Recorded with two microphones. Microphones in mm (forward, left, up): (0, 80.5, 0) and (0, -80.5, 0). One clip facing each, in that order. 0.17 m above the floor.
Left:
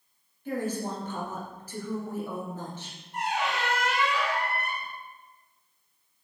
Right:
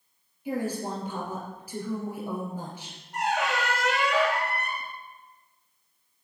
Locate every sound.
0.5 s a woman speaking: 10° right (ahead or behind), 2.5 m
3.1 s a squeak: 80° right, 1.4 m